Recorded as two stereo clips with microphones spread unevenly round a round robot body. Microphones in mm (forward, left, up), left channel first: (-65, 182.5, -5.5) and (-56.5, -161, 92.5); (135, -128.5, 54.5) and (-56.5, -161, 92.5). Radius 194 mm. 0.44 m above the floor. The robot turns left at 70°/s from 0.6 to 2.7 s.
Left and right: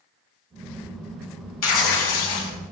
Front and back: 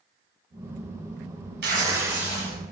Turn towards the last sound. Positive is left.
turn(degrees=60)